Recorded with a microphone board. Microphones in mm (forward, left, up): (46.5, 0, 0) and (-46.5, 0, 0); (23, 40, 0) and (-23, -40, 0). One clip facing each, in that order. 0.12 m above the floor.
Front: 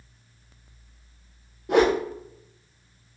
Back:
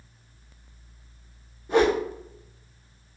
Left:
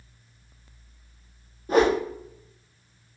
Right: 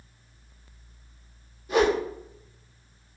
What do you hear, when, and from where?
1.7 s a whoosh: 10° left, 1.7 m